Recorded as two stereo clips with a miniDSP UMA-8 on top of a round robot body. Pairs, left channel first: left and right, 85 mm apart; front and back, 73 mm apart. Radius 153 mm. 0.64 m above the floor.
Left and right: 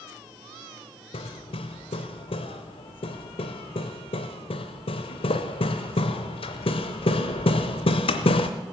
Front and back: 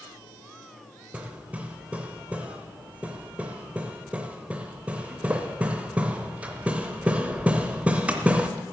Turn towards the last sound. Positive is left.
turn(degrees=105)